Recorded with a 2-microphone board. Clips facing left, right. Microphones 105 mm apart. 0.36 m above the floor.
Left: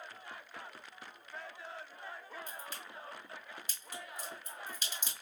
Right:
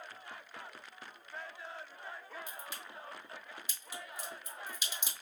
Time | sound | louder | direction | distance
2.5 | a crack | even | 10° right (ahead or behind) | 2.5 m